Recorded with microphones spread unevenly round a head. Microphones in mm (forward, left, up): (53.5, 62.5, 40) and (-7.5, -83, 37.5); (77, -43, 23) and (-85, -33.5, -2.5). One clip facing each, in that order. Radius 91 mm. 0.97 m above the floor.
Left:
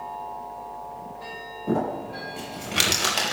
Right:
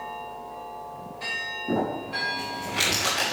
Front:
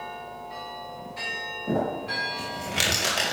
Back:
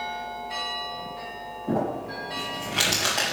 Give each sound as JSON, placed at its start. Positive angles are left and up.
{"t": 1.7, "sound": "crumpling", "azimuth_deg": 70, "distance_m": 5.0}